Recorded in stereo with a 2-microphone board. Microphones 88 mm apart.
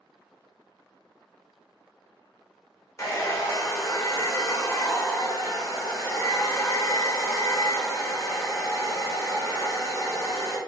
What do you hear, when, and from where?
3.0 s a hair dryer: 35° left (ahead or behind), 0.7 m